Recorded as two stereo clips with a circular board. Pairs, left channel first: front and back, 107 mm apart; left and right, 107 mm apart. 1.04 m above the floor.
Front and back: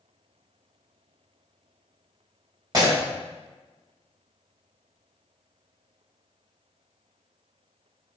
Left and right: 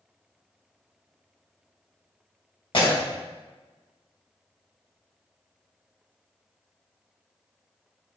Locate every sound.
2.7 s breaking glass: 125° left, 3.5 m